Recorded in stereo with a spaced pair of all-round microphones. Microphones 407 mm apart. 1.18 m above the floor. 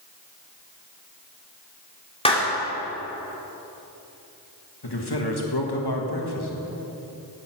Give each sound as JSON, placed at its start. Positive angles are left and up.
{"t": 2.2, "sound": "a clap", "side_deg": 15, "distance_m": 2.5}
{"t": 4.8, "sound": "a man speaking", "side_deg": 70, "distance_m": 1.8}